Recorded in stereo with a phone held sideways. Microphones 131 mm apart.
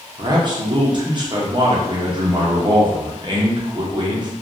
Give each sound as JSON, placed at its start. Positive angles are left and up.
{"t": 0.2, "sound": "a man speaking", "side_deg": -35, "distance_m": 0.7}